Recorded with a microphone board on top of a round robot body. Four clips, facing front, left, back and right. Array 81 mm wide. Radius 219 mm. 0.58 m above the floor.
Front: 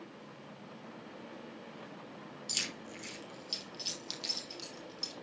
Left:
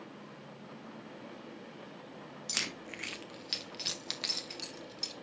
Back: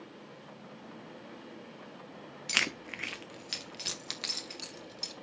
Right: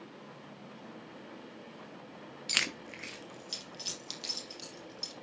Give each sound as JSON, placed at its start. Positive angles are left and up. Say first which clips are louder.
{"t": 2.5, "sound": "keys jangling", "louder": "right 5 dB, back 12 dB", "azimuth_deg": -160, "distance_m": 1.0}